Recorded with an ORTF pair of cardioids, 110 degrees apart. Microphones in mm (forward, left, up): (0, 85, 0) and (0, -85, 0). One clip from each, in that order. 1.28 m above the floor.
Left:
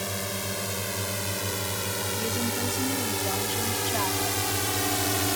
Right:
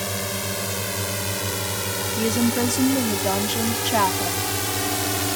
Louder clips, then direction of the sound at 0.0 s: Right 4 dB; 30° right.